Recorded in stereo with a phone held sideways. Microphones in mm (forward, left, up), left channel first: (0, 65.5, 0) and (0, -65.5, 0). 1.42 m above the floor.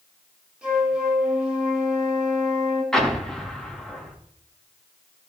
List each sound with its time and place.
0.6 s a flute: 5° right (ahead or behind), 5.5 m
2.9 s an explosion: 5° left (ahead or behind), 2.5 m